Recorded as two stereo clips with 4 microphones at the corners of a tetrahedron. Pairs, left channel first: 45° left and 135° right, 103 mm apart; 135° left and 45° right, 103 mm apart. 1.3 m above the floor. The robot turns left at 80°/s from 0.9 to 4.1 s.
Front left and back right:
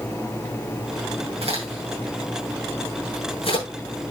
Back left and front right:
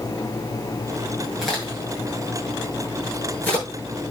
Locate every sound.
1.4 s a crack: 130° right, 8 m; by 3.6 s 50° left, 8 m